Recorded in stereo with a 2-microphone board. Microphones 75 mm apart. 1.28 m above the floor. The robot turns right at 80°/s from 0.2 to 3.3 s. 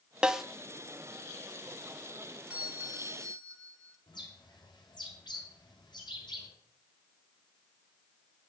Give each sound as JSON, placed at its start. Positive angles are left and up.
{"t": 0.2, "sound": "a snare drum", "side_deg": -10, "distance_m": 0.7}
{"t": 2.5, "sound": "a doorbell", "azimuth_deg": -160, "distance_m": 1.7}
{"t": 4.1, "sound": "a bird", "side_deg": 80, "distance_m": 6.5}